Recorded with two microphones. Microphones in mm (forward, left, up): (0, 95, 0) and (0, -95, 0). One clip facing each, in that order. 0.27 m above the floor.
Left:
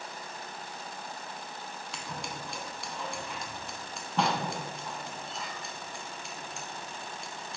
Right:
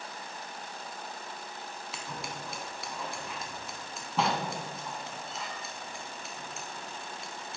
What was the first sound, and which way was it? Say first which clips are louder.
Scissors: even; centre (ahead or behind).